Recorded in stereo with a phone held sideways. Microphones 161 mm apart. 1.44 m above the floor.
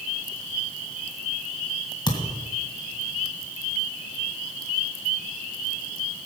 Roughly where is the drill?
I don't hear a drill.